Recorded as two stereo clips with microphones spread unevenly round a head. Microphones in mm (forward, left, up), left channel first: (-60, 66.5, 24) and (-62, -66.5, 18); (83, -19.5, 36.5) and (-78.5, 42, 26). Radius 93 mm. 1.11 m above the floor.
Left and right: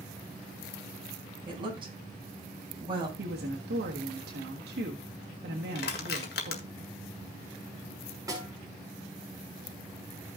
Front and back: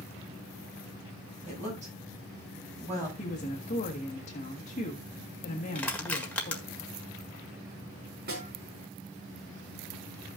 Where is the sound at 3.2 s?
75° right, 1.5 m.